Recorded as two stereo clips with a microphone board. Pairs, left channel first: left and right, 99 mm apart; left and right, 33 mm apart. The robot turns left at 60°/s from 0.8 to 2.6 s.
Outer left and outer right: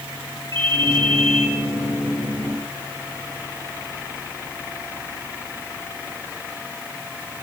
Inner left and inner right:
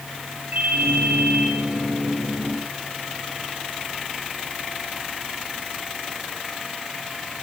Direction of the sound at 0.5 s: 60° right.